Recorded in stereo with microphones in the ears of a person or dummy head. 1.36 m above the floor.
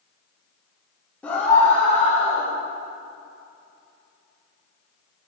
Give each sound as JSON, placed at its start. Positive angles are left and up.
{"t": 1.2, "sound": "a scream", "side_deg": 10, "distance_m": 2.0}